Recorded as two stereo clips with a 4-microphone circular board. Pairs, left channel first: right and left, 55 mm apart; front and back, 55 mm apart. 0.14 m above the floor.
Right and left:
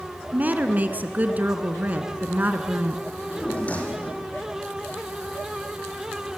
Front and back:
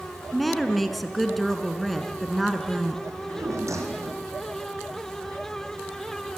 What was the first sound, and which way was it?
A woman speaking, 85° left.